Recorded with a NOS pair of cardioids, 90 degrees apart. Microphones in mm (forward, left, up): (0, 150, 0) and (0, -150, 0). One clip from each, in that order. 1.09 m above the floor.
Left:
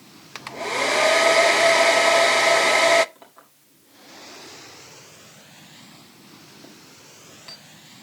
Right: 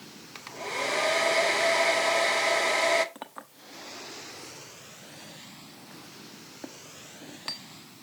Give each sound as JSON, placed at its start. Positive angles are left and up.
{"t": 0.3, "sound": "a hair dryer", "azimuth_deg": 30, "distance_m": 0.5}
{"t": 3.1, "sound": "a clink", "azimuth_deg": -60, "distance_m": 1.4}